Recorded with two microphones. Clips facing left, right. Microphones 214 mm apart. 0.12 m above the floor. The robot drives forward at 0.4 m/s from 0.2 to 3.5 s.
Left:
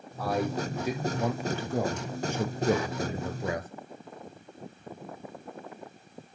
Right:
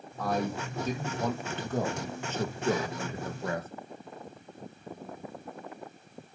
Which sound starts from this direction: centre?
A man speaking, at 0.2 s.